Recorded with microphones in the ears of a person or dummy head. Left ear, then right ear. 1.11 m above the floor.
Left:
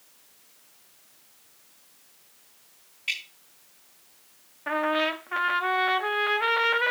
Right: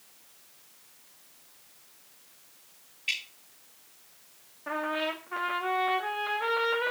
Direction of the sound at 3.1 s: 30° left (ahead or behind).